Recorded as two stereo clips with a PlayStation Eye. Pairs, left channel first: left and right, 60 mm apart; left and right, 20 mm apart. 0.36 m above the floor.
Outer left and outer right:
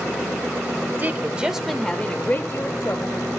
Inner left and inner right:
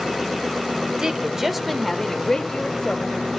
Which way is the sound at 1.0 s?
30° right (ahead or behind).